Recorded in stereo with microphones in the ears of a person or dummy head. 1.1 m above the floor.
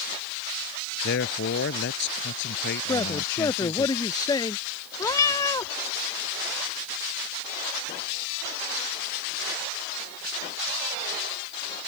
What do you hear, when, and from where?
1.0 s a man speaking: 60° left (ahead or behind)
2.9 s a man speaking: 20° left (ahead or behind)
5.0 s a cat meowing: 15° left (ahead or behind)